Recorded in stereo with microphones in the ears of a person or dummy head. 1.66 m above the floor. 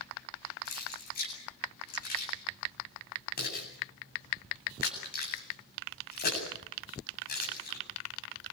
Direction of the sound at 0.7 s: 55° left (ahead or behind).